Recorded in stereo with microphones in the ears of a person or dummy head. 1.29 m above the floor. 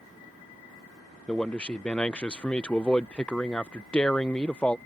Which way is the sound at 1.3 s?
5° left (ahead or behind).